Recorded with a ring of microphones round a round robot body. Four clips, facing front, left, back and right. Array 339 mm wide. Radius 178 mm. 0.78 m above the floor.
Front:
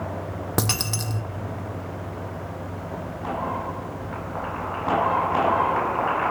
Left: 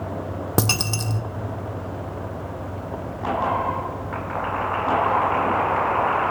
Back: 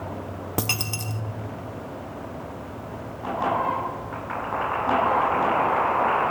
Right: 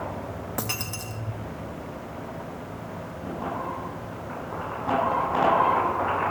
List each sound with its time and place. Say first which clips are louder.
0.6 s a dropped coin: left 9 dB, front 3 dB; 80° left, 1.1 m